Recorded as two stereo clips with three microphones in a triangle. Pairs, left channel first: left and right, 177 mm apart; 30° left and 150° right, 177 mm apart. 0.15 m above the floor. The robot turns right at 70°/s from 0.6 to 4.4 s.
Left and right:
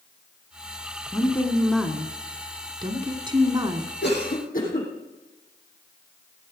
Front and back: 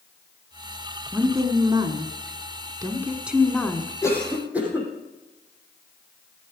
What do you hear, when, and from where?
1.1 s a woman speaking: 135° left, 1.5 m; by 3.9 s 25° right, 1.5 m
4.0 s a cough: 100° left, 6 m; by 4.9 s 130° left, 6 m